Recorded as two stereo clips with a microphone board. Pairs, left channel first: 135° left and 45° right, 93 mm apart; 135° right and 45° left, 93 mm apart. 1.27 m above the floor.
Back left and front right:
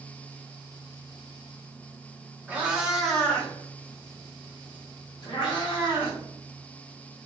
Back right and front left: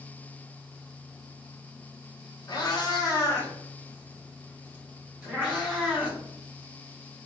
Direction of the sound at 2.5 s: 115° right.